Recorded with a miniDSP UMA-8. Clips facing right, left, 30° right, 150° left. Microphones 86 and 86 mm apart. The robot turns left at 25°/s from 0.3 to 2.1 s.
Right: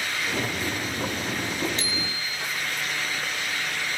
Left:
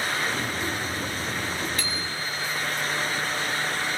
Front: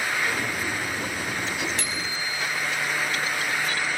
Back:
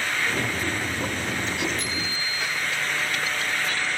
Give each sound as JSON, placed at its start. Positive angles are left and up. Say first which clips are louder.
{"t": 1.8, "sound": "a bicycle bell", "louder": "even, even", "azimuth_deg": -30, "distance_m": 7.0}